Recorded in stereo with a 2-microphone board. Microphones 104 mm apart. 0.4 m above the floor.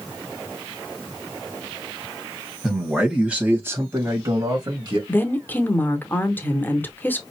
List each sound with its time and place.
2.6 s a man speaking: 5° right (ahead or behind), 2.5 m; by 5.0 s 45° right (ahead or behind), 2.0 m
5.1 s a woman speaking: 20° left (ahead or behind), 1.0 m